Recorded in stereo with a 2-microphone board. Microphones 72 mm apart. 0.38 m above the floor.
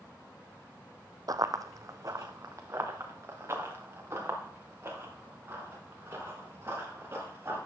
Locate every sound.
1.3 s running footsteps: 55° right (ahead or behind), 0.6 m; by 7.6 s 30° right (ahead or behind), 6.5 m